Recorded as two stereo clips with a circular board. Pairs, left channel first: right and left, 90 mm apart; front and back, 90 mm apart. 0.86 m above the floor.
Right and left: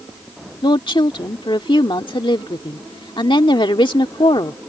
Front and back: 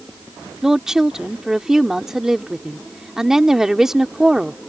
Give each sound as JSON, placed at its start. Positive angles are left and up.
{"t": 0.6, "sound": "a woman speaking", "azimuth_deg": -95}